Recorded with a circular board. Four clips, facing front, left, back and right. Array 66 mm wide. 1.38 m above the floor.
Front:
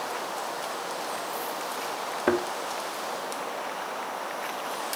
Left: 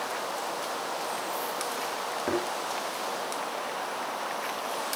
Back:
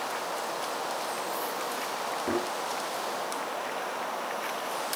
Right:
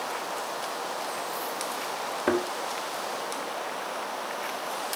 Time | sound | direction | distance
2.3 | a thud | 30° right | 2.5 m